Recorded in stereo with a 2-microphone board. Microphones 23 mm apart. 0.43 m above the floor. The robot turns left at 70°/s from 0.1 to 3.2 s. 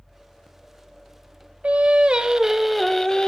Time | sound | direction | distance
1.6 | singing | 100° right | 0.6 m